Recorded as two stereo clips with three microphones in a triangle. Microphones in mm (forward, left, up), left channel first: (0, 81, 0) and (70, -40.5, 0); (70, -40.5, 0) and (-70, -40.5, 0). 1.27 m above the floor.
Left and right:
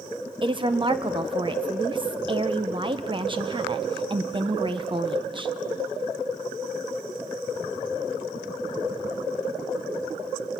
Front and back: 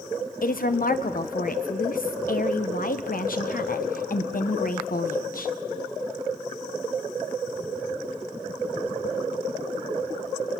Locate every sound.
0.4 s a woman speaking: 5° right, 0.8 m